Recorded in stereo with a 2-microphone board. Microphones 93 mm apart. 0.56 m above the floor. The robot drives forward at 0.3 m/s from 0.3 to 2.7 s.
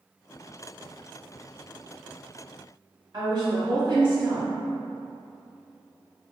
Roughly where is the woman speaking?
Right.